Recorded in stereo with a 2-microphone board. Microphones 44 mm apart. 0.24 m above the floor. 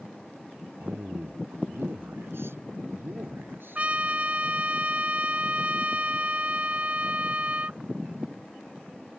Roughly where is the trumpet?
Right.